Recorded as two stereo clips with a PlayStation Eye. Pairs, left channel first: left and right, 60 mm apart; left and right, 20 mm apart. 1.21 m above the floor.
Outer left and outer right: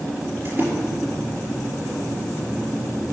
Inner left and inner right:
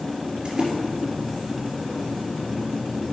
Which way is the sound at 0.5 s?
35° right (ahead or behind).